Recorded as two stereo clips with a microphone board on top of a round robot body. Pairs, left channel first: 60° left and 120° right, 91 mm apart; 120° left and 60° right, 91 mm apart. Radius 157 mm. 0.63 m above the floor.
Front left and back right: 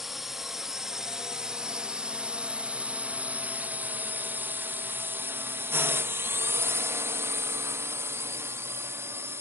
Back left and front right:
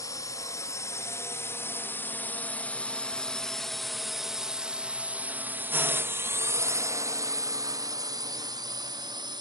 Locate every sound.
0.0 s a drone: 155° left; by 9.4 s 65° right